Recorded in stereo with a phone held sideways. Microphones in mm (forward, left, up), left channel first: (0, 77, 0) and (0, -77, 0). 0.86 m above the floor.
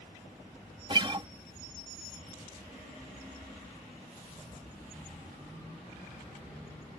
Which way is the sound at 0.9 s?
30° right (ahead or behind).